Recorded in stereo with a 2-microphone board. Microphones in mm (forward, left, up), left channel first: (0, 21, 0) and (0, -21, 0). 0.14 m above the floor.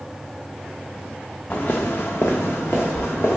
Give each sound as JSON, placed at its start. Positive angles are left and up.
{"t": 1.5, "sound": "footsteps", "side_deg": 35, "distance_m": 0.5}